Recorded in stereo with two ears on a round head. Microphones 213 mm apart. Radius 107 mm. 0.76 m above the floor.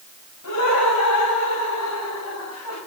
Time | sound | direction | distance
0.4 | laughter | 75° left (ahead or behind) | 6 m